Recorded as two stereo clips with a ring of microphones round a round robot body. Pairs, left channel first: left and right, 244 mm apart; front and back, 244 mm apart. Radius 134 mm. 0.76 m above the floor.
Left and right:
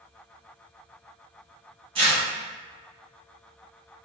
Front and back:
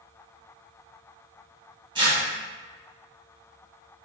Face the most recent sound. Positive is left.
turn(degrees=-130)